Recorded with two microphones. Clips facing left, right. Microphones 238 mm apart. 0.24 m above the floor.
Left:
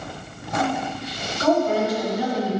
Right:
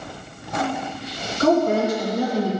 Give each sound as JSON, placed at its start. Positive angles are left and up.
{"t": 1.4, "sound": "a woman speaking", "side_deg": -45, "distance_m": 2.5}